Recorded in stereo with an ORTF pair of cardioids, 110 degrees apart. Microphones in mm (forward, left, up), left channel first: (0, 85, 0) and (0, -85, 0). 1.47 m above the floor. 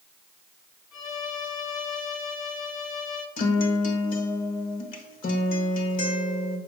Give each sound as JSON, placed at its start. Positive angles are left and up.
{"t": 0.9, "sound": "a violin", "azimuth_deg": 55, "distance_m": 1.6}
{"t": 3.4, "sound": "a guitar", "azimuth_deg": 60, "distance_m": 1.4}